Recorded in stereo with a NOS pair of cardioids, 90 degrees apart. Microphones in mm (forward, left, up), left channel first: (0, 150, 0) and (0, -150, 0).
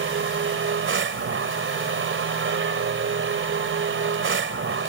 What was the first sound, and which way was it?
A machine running, 40° right.